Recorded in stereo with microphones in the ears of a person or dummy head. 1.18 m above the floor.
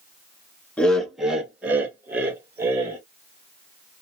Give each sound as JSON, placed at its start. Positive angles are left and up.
{"t": 0.8, "sound": "laughter", "side_deg": 5, "distance_m": 0.7}